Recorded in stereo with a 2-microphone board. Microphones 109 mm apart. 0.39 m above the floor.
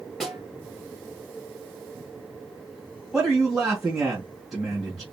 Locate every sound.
0.2 s a snare drum: centre (ahead or behind), 3.5 m
3.1 s a man speaking: centre (ahead or behind), 1.9 m